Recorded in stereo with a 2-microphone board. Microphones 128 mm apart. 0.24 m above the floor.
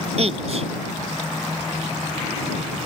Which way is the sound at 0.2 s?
55° right (ahead or behind).